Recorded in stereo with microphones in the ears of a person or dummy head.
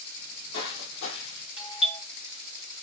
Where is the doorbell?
25° left (ahead or behind), 2 m.